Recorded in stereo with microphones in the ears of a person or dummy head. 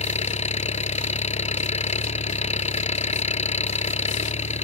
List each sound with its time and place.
0.0 s an engine running: 40° left (ahead or behind)